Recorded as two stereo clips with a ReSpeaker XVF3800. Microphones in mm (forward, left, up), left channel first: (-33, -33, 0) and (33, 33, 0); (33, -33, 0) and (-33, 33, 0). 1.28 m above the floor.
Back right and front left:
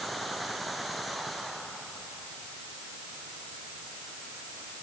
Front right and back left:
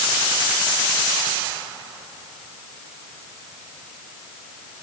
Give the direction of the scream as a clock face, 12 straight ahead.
No scream in this recording.